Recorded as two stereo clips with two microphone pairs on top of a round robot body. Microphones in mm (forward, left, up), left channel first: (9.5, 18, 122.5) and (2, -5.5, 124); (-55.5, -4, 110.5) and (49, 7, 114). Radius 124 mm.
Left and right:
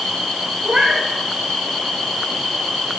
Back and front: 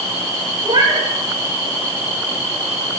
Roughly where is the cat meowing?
Ahead right.